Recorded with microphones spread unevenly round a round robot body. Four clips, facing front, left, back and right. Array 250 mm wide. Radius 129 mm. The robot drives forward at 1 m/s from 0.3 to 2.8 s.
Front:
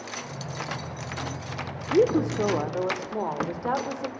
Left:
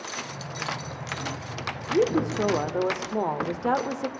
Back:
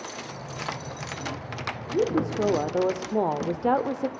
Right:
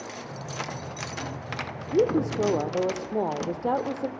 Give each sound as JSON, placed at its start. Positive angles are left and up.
{"t": 1.9, "sound": "a woman speaking", "azimuth_deg": -10, "distance_m": 0.9}